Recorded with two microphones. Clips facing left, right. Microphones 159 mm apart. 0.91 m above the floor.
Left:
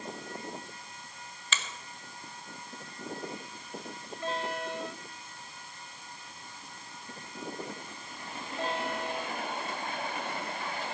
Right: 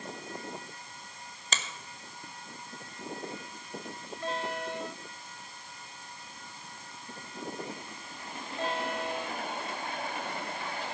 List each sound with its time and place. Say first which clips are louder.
1.5 s a finger snap: right 1 dB; 40° right (ahead or behind), 1.1 m